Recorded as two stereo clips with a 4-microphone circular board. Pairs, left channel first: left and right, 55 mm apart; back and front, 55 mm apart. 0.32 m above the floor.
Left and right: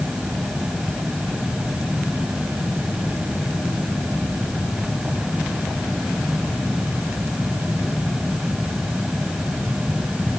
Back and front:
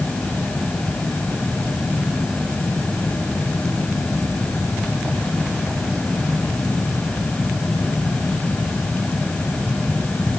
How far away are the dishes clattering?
No dishes clattering in this recording.